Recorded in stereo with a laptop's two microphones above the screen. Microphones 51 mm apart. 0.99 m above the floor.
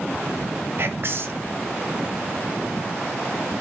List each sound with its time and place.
0.8 s whispering: 50° right (ahead or behind), 0.6 m